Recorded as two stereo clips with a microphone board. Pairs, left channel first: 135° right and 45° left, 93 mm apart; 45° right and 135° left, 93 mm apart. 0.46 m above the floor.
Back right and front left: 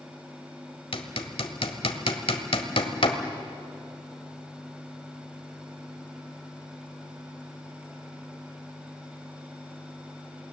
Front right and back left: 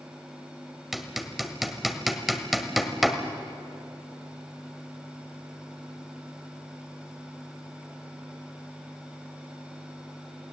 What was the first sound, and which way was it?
Hammering, 135° right.